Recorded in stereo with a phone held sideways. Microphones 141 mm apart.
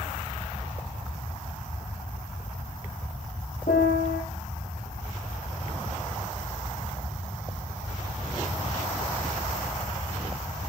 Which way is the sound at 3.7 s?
75° left (ahead or behind).